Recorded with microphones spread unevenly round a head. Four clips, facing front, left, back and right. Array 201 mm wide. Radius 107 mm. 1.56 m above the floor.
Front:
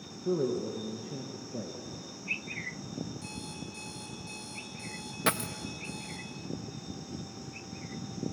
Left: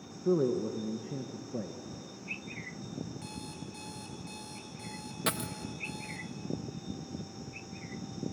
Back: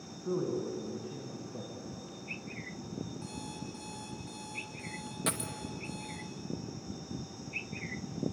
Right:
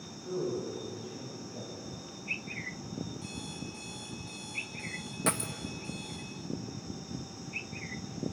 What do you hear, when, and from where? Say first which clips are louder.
0.2 s a man speaking: left 6 dB, front 3 dB; 85° left, 1.7 m
3.2 s an alarm clock: right 1 dB, even; 90° left, 3 m
5.3 s a dropped coin: right 2 dB, front 7 dB; 30° right, 0.9 m